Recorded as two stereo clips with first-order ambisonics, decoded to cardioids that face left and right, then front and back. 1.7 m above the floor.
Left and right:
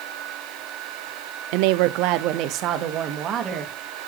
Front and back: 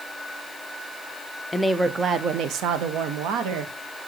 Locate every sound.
1.5 s a woman speaking: 80° right, 0.5 m; by 3.7 s 150° right, 1.4 m